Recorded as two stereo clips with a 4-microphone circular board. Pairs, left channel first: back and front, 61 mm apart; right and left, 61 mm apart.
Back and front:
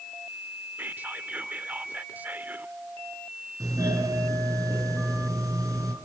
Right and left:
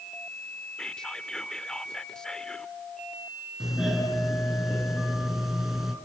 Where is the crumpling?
I don't hear crumpling.